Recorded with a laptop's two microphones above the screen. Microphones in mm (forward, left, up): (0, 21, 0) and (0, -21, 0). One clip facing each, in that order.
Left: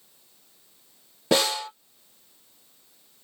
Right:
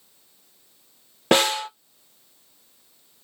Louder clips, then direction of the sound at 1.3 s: Right 4 dB; 55° right (ahead or behind).